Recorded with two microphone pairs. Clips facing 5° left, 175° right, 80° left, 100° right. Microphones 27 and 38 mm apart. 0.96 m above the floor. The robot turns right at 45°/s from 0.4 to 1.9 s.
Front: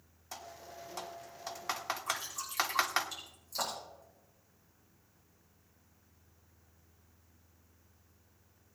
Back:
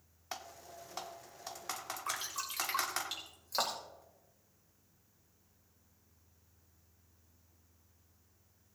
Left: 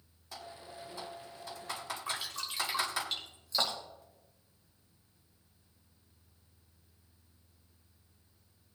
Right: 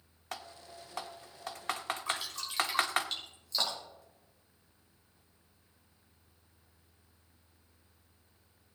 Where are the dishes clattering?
I don't hear dishes clattering.